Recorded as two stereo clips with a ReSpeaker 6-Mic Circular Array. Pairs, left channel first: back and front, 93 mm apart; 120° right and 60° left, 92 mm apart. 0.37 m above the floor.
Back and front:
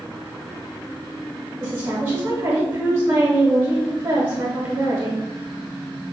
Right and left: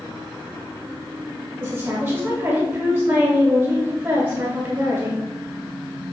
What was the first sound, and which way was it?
A woman speaking, 20° left.